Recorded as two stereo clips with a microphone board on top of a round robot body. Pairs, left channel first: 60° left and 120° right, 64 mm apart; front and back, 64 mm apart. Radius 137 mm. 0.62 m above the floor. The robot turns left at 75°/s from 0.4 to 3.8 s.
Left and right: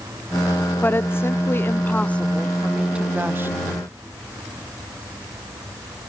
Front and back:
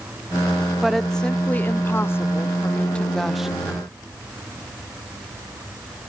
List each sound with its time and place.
0.8 s a woman speaking: 100° left, 1.0 m; by 3.5 s 100° right, 1.0 m